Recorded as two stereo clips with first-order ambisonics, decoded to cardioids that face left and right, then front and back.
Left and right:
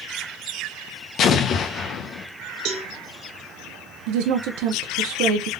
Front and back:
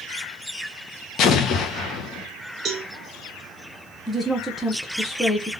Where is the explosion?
45° left, 0.5 m.